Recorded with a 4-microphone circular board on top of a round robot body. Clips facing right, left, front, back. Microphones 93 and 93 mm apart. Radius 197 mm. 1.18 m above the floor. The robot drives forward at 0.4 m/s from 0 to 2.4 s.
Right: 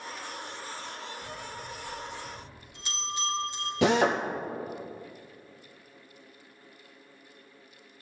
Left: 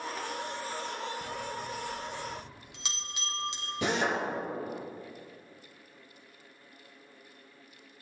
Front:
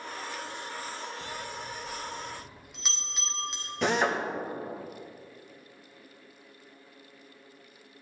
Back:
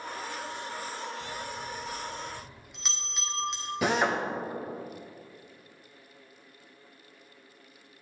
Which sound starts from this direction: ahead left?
A bell, at 1.2 s.